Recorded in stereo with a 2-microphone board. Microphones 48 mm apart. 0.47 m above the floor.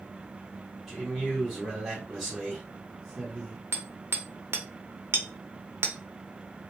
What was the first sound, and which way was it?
A man speaking, 5° right (ahead or behind).